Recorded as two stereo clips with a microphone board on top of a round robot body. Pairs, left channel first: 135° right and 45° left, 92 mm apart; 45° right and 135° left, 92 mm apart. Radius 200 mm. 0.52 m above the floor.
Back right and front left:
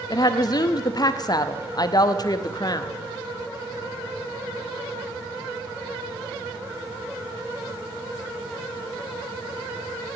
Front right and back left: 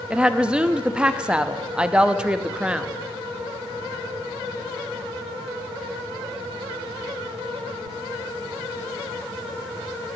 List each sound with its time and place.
0.1 s a woman speaking: 150° right, 1.1 m